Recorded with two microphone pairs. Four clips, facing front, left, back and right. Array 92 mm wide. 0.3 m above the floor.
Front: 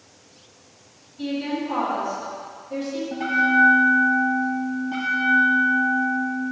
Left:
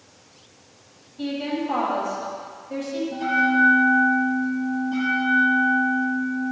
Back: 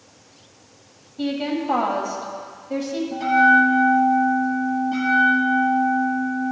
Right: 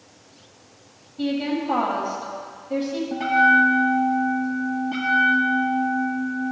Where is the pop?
No pop in this recording.